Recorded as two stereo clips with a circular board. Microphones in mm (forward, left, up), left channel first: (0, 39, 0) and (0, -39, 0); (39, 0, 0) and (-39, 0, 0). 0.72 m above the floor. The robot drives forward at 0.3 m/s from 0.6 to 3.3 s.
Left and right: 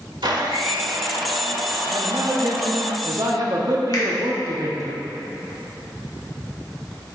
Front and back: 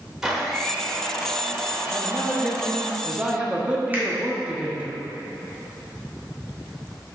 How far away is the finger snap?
About 1.6 m.